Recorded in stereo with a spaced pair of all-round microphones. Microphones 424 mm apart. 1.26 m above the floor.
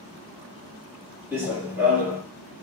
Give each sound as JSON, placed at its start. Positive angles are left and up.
{"t": 1.3, "sound": "running footsteps", "side_deg": -5, "distance_m": 1.3}